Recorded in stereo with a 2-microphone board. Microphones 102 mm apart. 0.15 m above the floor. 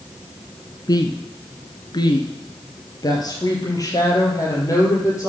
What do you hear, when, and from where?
0.9 s a woman speaking: 40° left (ahead or behind), 1.4 m; by 5.3 s 30° left (ahead or behind), 4.5 m